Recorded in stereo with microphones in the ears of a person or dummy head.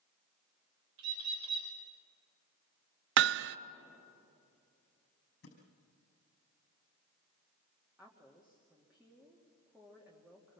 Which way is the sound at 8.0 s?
5° right (ahead or behind).